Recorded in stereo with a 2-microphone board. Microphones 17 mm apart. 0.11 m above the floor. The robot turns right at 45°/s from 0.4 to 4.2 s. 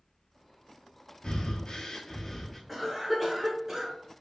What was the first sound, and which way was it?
Breathing, 105° left.